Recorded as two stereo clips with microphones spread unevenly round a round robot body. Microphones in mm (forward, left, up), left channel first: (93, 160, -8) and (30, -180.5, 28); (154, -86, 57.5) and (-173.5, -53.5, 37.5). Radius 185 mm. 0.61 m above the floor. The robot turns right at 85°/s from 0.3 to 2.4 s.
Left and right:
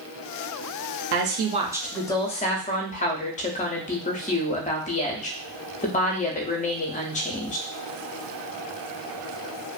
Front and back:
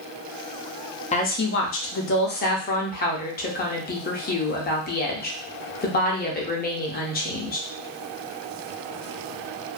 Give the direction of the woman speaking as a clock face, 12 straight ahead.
2 o'clock.